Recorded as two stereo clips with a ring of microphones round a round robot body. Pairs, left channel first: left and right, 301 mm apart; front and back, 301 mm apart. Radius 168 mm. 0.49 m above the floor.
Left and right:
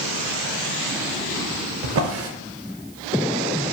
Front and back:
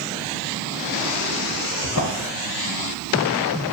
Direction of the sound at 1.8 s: 45° right.